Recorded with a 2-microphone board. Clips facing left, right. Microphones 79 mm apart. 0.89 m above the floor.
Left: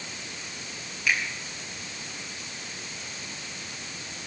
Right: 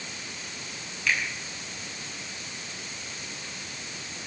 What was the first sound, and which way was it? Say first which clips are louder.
A finger snap: left 1 dB; 10° left (ahead or behind).